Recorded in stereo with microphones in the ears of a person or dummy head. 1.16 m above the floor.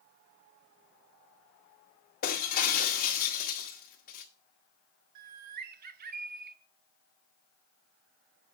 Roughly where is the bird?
Right.